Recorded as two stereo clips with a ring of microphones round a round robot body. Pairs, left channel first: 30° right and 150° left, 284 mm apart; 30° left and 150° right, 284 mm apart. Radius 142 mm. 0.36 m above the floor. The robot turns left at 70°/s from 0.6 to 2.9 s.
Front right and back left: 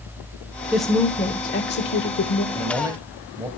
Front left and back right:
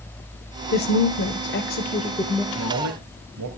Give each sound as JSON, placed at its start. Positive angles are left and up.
{"t": 0.7, "sound": "a woman speaking", "azimuth_deg": 65, "distance_m": 1.1}
{"t": 2.5, "sound": "a man speaking", "azimuth_deg": -110, "distance_m": 2.0}